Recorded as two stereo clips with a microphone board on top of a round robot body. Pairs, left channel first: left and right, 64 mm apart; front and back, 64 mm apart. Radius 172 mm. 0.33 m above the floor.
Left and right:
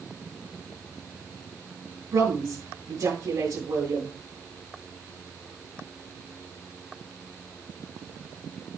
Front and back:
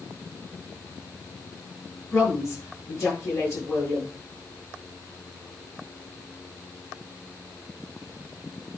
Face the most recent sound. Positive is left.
turn(degrees=-55)